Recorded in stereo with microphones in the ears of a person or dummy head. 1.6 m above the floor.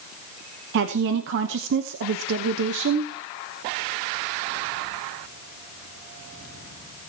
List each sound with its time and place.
0.7 s a woman speaking: 60° right (ahead or behind), 1.0 m